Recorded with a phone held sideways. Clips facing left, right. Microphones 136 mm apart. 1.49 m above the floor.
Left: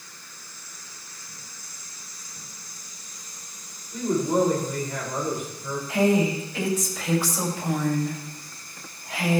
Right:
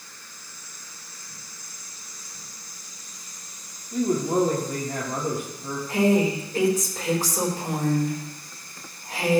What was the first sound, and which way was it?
A man speaking, 60° right (ahead or behind).